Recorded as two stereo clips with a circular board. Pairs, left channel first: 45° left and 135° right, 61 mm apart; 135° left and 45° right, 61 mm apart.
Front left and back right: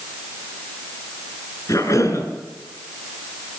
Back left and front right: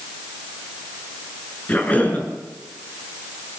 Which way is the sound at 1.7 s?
70° left.